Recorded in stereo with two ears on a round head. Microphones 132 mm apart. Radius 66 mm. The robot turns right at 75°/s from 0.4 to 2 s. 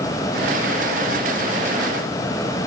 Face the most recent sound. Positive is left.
No sound to turn to.